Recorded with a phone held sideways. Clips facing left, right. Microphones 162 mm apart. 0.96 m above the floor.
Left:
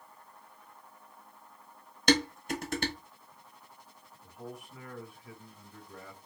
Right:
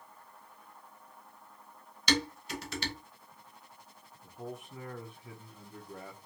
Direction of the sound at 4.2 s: 25° right (ahead or behind).